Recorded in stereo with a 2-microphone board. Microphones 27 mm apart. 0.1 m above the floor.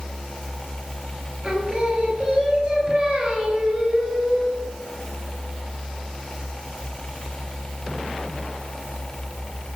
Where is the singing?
35° right (ahead or behind), 1.6 m.